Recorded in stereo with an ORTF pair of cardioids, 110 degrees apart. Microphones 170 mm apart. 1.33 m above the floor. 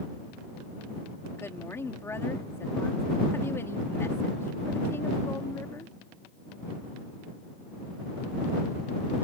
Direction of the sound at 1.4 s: 15° left.